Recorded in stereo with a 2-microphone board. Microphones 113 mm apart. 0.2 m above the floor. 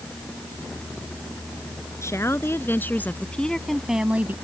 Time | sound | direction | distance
2.0 | a woman speaking | 25° left (ahead or behind) | ?